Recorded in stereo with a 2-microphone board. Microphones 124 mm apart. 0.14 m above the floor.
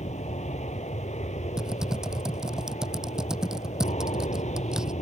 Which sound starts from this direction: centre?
Typing on a keyboard, at 1.6 s.